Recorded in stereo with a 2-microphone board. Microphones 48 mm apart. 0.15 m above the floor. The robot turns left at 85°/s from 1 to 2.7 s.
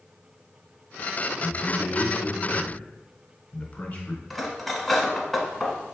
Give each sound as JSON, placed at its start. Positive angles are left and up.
{"t": 1.4, "sound": "a man speaking", "azimuth_deg": 175, "distance_m": 1.3}
{"t": 4.3, "sound": "cutlery clinking", "side_deg": 5, "distance_m": 0.9}